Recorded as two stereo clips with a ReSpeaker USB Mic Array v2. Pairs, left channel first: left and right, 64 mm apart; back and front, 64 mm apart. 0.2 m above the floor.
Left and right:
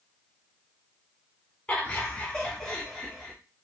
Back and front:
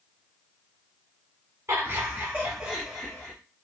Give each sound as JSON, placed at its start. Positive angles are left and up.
{"t": 1.7, "sound": "laughter", "azimuth_deg": 25, "distance_m": 1.3}